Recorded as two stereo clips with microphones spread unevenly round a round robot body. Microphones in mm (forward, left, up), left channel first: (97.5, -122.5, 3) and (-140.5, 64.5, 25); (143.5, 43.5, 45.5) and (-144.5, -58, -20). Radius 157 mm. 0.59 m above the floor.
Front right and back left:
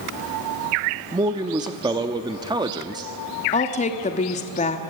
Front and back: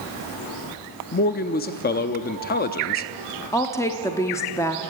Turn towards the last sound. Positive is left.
turn(degrees=-75)